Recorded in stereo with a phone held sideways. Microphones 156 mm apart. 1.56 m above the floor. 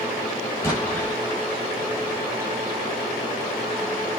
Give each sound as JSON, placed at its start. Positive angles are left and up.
{"t": 0.6, "sound": "an explosion", "side_deg": 15, "distance_m": 6.0}